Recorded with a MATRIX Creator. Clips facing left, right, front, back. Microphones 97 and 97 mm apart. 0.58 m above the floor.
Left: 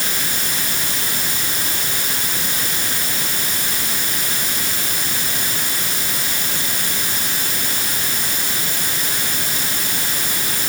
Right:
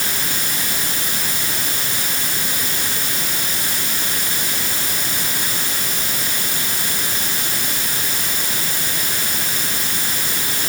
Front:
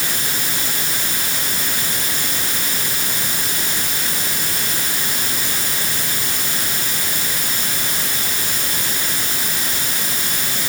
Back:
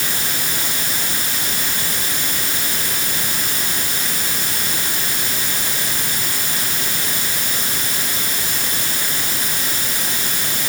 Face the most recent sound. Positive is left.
No sound to turn to.